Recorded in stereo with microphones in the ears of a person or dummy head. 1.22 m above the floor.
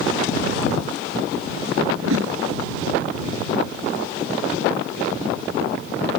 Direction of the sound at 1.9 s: 80° right.